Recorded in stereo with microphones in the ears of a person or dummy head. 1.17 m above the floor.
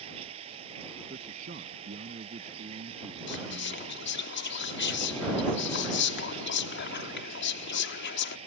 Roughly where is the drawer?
No drawer in this recording.